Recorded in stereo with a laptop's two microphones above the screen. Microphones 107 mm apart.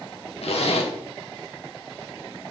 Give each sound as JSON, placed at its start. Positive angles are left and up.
{"t": 0.4, "sound": "a zipper", "side_deg": 75, "distance_m": 1.5}